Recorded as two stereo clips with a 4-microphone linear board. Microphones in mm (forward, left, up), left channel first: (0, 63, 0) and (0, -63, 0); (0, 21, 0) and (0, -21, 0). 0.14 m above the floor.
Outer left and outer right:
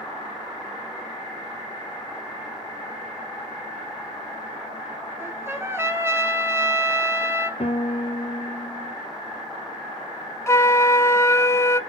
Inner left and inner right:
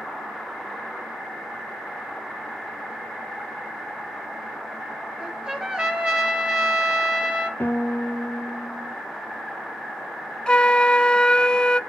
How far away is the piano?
About 1.0 m.